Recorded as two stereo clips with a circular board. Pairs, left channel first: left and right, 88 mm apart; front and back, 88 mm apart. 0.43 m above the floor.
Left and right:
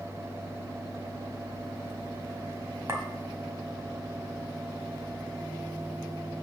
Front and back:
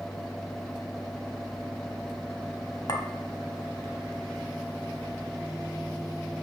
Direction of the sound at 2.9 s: 35° right.